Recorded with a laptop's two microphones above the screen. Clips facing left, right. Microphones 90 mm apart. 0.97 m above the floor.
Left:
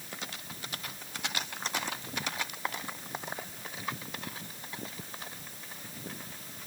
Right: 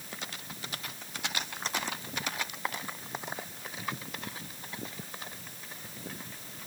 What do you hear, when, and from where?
Only background noise.